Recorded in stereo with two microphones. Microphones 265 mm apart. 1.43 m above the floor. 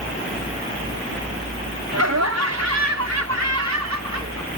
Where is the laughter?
70° right (ahead or behind); by 4.5 s 85° right.